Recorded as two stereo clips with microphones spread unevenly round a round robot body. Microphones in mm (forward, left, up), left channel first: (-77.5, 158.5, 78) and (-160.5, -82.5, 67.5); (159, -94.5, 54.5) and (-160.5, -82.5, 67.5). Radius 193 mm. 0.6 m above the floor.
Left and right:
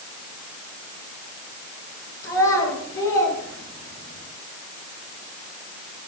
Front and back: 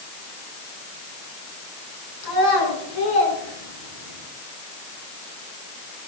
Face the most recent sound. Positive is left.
turn(degrees=15)